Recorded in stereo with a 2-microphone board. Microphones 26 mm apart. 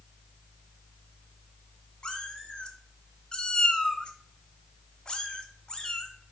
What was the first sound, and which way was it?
A cat meowing, 40° left (ahead or behind).